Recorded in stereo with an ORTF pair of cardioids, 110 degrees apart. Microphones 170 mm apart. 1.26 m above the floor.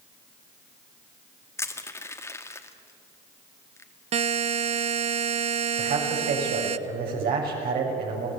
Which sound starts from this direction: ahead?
Crushing, at 1.6 s.